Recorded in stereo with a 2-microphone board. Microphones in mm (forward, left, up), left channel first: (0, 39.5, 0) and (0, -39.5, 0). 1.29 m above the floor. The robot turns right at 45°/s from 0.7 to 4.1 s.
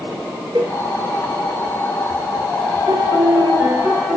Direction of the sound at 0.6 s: 70° right (ahead or behind).